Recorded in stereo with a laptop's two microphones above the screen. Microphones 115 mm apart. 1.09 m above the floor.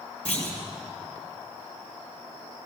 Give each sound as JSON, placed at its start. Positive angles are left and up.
{"t": 0.2, "sound": "a clunk", "side_deg": 10, "distance_m": 6.0}